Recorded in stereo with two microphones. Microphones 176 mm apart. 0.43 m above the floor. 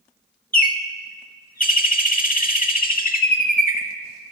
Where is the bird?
55° left (ahead or behind), 0.6 m.